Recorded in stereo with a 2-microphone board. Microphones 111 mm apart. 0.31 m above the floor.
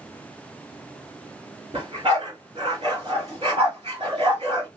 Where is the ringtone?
No ringtone in this recording.